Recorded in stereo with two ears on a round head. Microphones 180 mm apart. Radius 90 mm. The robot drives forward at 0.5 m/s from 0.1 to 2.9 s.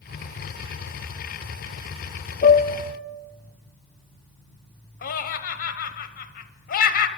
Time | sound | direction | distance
2.4 | a piano | 40° left (ahead or behind) | 0.6 m
5.0 | laughter | 50° left (ahead or behind) | 1.0 m